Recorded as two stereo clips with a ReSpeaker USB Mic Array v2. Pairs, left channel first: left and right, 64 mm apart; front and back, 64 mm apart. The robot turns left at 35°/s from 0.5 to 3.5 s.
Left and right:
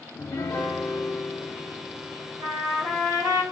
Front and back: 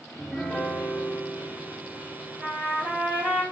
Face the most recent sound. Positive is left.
turn(degrees=-135)